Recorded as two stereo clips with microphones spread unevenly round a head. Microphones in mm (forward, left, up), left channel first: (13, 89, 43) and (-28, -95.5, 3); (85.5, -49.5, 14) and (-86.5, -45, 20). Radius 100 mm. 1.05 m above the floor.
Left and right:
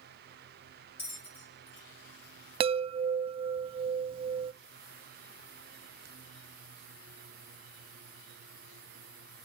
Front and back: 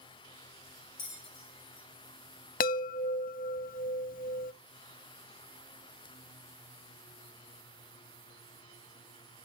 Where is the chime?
35° right, 0.5 m.